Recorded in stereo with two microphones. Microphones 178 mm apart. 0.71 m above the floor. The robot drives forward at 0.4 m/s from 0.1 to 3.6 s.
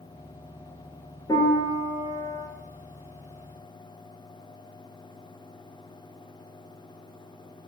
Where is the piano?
20° left (ahead or behind), 3.5 m; by 2.5 s 25° left (ahead or behind), 3 m.